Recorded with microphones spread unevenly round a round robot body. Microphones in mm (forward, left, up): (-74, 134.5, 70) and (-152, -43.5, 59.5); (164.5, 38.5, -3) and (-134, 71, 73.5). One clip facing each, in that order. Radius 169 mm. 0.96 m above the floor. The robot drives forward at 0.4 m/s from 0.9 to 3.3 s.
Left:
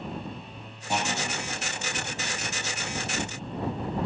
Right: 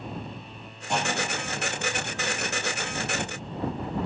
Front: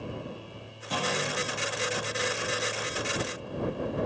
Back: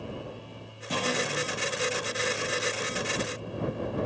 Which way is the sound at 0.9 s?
150° left.